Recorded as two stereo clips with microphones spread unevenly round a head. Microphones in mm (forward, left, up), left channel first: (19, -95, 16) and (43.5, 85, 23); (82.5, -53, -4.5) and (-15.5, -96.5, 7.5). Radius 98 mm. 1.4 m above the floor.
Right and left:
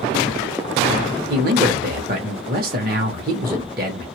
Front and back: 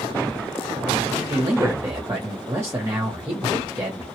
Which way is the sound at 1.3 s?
125° left.